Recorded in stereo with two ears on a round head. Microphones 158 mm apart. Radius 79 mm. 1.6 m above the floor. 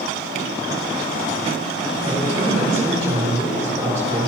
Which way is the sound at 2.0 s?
20° right (ahead or behind).